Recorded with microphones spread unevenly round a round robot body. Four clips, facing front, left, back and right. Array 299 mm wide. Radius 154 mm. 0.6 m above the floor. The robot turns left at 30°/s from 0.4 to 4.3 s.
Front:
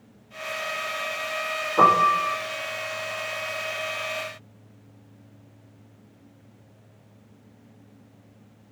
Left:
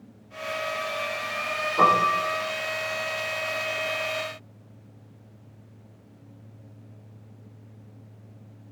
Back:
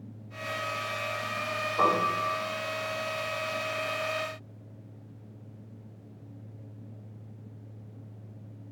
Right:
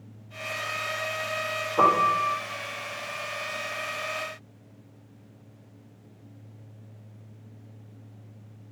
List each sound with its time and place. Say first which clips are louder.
1.8 s a piano: left 1 dB, front 8 dB; 15° right, 9 m; by 2.3 s 35° right, 9 m